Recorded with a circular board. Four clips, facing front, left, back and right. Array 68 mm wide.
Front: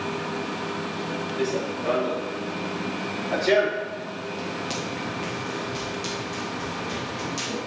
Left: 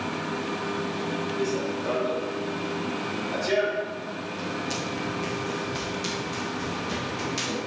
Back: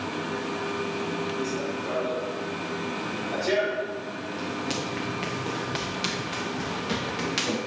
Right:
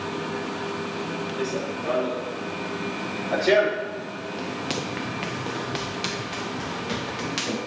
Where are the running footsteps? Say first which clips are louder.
Even, front 3 dB; 25° right, 2.5 m; by 7.6 s 145° right, 3 m.